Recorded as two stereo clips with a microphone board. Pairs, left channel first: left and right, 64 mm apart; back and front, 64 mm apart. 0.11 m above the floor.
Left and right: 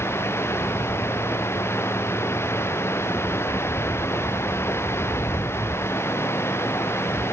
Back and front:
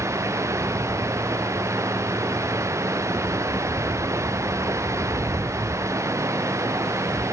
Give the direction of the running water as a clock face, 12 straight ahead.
11 o'clock.